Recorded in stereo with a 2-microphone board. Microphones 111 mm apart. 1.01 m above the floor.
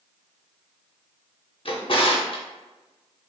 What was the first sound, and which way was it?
A drawer, 55° left (ahead or behind).